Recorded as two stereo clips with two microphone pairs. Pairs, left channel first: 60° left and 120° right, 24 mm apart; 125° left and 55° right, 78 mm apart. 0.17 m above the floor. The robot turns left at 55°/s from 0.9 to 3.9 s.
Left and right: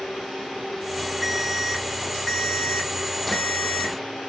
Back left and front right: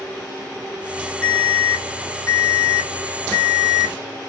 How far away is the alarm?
About 1.6 m.